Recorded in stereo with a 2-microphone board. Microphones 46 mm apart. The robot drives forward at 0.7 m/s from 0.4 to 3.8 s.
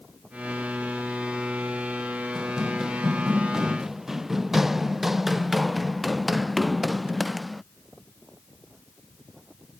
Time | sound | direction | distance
2.4 | running footsteps | 10° right (ahead or behind) | ?